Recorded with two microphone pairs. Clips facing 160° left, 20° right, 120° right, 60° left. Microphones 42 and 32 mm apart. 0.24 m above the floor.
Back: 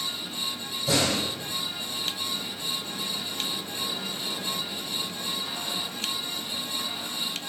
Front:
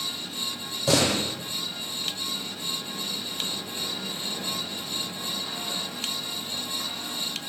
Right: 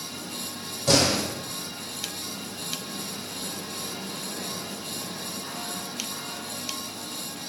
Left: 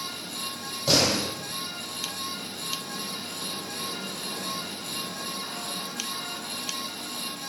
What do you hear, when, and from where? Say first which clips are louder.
0.9 s a door slam: front 2 dB, right 1 dB; 20° right, 7.5 m